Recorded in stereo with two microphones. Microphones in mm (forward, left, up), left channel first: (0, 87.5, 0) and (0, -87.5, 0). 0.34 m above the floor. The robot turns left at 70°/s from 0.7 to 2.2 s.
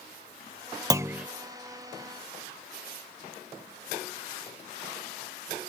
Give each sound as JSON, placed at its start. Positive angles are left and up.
{"t": 0.9, "sound": "a clunk", "side_deg": -20}